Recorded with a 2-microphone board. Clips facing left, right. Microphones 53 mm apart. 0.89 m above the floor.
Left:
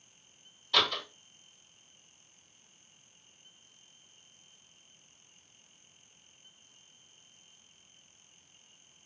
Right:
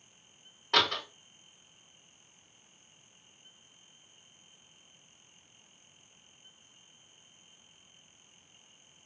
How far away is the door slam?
About 0.9 m.